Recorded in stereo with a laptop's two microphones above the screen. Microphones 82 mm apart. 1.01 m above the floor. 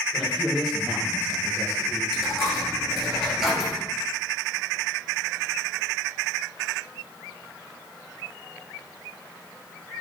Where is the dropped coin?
5° right (ahead or behind), 1.2 m.